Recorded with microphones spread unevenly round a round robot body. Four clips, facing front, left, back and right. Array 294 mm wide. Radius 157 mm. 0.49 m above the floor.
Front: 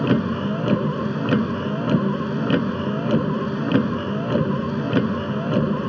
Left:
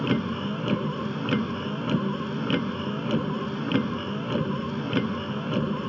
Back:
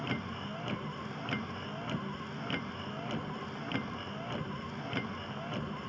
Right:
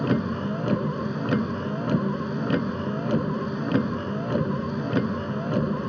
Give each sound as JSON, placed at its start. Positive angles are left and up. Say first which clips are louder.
{"t": 0.0, "sound": "a vehicle", "louder": "right 2 dB, front 18 dB", "azimuth_deg": 0}